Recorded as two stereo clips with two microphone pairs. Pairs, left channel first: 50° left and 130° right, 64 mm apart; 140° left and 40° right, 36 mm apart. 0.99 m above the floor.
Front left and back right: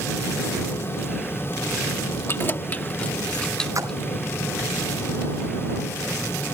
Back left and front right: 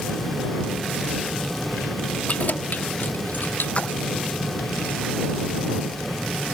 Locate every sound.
2.3 s keys jangling: 95° left; by 4.0 s 130° left
3.8 s a splash: 165° right